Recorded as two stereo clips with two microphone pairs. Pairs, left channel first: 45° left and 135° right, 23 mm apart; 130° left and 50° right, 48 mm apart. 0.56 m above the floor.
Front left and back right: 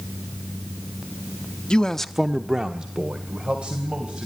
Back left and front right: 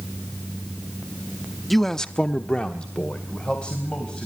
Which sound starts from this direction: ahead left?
A man speaking, at 1.7 s.